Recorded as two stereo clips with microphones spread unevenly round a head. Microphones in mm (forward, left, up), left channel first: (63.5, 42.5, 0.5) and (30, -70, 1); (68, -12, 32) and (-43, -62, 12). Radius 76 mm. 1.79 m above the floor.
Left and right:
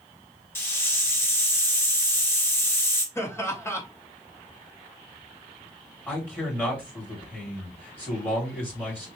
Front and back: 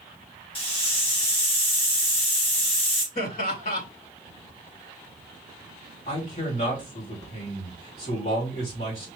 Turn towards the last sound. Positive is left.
turn(degrees=0)